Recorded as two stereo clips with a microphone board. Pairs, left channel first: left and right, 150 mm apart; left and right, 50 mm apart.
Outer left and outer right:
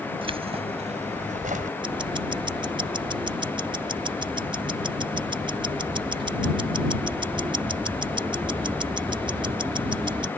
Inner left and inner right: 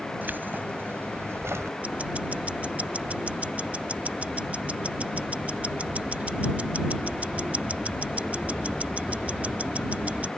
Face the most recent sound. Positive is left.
turn(degrees=-30)  # may be behind; listen again after turning